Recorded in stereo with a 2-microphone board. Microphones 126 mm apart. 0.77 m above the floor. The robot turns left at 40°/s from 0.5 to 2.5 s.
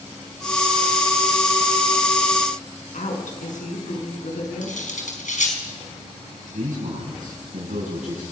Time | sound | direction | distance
2.9 | a woman speaking | 85° left | 6.5 m
4.6 | cutlery clinking | 80° left | 4.5 m
6.4 | a man speaking | 85° right | 7.5 m